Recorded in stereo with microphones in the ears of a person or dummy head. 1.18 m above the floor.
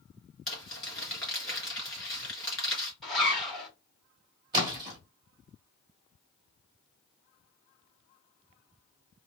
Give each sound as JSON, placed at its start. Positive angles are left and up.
{"t": 0.5, "sound": "crumpling", "side_deg": 0, "distance_m": 3.0}
{"t": 3.0, "sound": "a zipper", "side_deg": 0, "distance_m": 2.5}
{"t": 4.5, "sound": "a splash", "side_deg": -25, "distance_m": 2.0}